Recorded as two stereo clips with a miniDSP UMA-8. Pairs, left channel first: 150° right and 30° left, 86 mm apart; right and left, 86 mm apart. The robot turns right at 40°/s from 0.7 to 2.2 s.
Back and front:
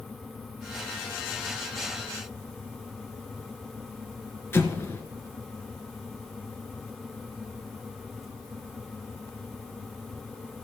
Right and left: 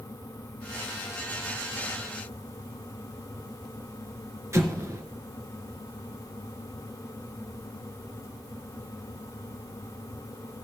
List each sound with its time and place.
4.5 s an explosion: 145° left, 1.1 m